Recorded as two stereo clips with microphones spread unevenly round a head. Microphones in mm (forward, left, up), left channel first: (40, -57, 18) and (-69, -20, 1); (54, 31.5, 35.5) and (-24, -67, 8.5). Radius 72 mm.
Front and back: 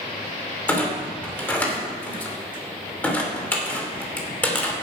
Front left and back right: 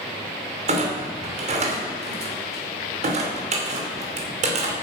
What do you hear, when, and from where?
0.7 s a clunk: 95° right, 2.5 m